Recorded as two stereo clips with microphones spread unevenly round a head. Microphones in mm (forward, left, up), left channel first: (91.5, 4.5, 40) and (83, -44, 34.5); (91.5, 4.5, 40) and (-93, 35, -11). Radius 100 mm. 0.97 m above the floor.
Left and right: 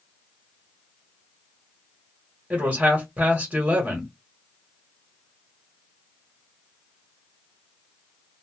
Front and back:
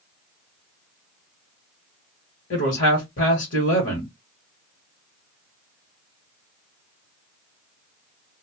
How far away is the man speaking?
About 1.4 m.